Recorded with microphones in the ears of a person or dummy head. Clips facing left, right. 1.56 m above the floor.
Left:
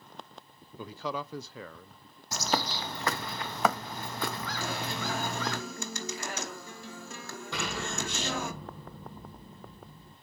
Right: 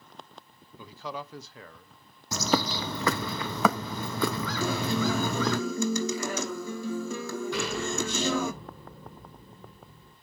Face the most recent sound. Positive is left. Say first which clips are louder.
# right 3 dB
turn(degrees=55)  # may be behind; listen again after turning